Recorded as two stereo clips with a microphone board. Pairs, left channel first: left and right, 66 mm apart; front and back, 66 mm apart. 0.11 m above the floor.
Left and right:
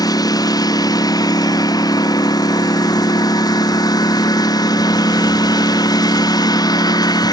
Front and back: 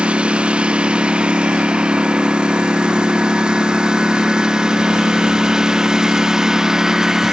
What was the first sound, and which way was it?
A lawn mower, 105° left.